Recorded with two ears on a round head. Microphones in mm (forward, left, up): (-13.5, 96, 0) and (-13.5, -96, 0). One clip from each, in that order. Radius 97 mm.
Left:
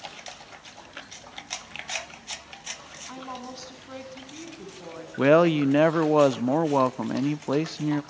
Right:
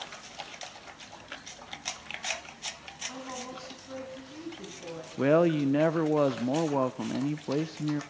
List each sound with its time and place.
3.1 s a woman speaking: 70° left (ahead or behind), 10 m
5.2 s a man speaking: 30° left (ahead or behind), 0.6 m